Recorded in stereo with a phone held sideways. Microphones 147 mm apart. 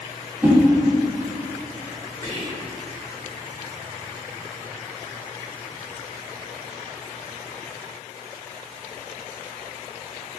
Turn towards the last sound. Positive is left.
turn(degrees=45)  # may be behind; listen again after turning